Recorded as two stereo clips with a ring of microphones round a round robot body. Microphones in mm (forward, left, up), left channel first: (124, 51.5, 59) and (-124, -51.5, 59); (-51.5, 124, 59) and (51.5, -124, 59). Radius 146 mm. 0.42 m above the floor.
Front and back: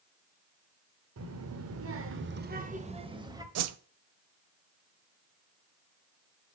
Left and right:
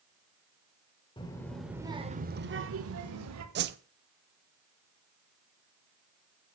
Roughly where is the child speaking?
Behind.